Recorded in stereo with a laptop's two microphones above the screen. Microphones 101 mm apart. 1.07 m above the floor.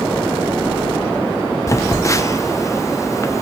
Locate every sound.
1.7 s a phone buzzing: 30° left (ahead or behind), 0.6 m